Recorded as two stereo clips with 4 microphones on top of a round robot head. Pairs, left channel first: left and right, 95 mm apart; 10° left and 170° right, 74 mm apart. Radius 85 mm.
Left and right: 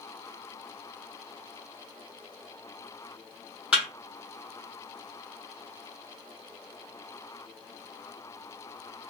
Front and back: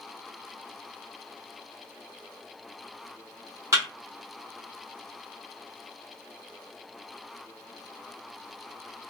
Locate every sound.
3.7 s a thud: 165° right, 0.8 m